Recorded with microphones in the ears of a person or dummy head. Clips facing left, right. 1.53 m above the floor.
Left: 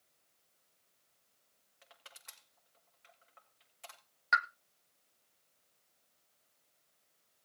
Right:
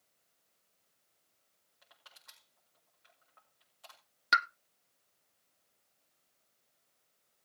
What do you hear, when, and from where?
1.8 s crushing: 35° left (ahead or behind), 6.5 m
4.3 s a pop: 45° right (ahead or behind), 0.5 m